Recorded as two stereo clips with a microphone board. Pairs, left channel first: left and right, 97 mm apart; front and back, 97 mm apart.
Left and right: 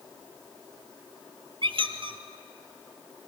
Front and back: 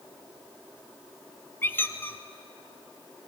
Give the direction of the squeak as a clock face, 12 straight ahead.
2 o'clock.